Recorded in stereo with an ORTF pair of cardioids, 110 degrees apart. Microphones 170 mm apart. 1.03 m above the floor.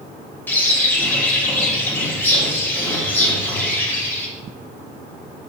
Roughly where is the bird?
Ahead.